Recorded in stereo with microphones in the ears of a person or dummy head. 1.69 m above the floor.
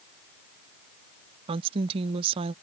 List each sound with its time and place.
1.5 s a woman speaking: 30° right (ahead or behind)